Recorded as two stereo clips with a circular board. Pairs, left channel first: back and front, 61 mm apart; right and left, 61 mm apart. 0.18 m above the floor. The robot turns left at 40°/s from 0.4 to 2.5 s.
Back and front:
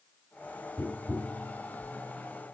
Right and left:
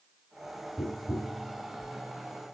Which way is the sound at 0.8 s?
145° right.